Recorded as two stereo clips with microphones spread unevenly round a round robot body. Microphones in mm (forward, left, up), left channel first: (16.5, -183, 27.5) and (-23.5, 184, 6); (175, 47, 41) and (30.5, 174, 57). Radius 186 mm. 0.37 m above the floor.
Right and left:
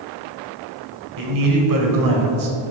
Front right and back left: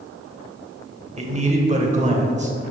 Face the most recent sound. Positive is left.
turn(degrees=90)